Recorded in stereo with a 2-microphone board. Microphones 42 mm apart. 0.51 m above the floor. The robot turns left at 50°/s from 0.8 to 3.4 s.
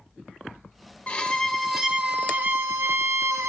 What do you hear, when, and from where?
1.1 s a violin: 30° left, 0.5 m; by 3.5 s 90° right, 0.5 m